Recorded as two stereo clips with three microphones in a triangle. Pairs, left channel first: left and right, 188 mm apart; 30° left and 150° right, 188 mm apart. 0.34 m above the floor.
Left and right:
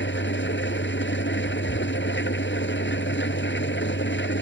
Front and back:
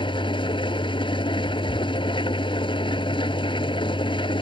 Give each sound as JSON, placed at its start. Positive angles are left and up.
{"t": 0.0, "sound": "an engine running", "azimuth_deg": 95}